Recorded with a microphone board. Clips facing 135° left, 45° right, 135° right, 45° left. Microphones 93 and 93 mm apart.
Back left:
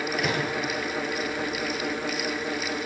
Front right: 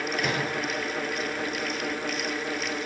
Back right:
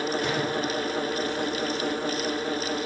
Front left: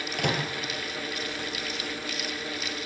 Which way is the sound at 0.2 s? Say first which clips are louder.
Back left 1 dB, back right 2 dB; 50° left.